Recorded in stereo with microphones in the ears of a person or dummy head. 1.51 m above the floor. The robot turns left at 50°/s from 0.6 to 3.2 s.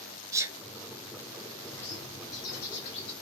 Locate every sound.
0.3 s a sneeze: 15° right (ahead or behind), 1.1 m
1.7 s a bird: 175° left, 1.7 m; by 3.1 s 105° left, 1.7 m